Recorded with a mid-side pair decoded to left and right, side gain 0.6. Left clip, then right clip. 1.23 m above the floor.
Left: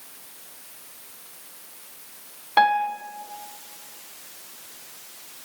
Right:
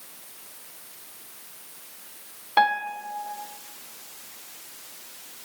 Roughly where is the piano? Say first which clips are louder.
Left 3 dB; ahead.